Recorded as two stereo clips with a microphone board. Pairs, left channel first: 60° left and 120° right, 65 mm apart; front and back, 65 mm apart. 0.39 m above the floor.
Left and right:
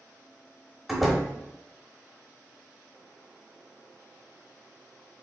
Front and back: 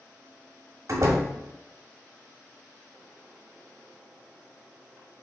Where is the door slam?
155° left, 1.1 m.